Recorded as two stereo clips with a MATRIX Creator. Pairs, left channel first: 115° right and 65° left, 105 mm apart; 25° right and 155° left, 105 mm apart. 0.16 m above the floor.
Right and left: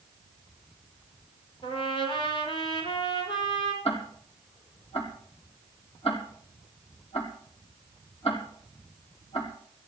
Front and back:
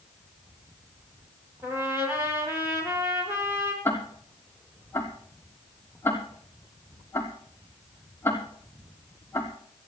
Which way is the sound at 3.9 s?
90° right.